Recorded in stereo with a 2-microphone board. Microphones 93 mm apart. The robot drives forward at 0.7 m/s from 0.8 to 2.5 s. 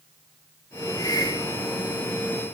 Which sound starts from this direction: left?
A hiss, at 1.0 s.